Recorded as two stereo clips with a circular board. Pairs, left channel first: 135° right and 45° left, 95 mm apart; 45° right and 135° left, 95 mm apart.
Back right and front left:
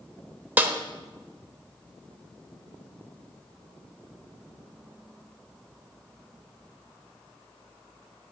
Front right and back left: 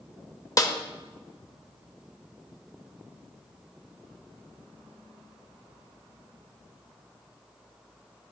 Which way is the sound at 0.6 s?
15° right.